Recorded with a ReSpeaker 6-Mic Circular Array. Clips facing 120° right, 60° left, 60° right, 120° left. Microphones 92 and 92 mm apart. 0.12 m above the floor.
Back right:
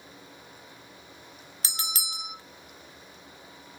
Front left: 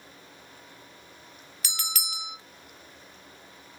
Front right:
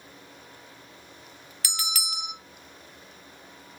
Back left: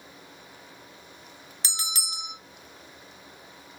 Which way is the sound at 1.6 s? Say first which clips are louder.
Even, front right 3 dB; straight behind.